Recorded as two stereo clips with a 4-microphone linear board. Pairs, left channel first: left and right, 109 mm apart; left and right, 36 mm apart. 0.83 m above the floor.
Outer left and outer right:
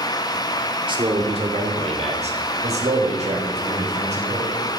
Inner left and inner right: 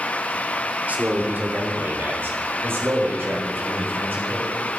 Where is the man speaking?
45° right (ahead or behind), 2.5 m; by 4.7 s 85° right, 7 m.